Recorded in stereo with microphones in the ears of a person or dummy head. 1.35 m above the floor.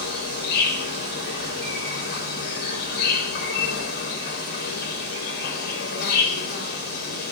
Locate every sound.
0.0 s an insect: 65° left (ahead or behind), 3.5 m